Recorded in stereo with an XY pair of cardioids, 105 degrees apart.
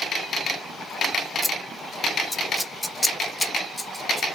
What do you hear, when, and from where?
1.4 s scissors: 5° left, 0.6 m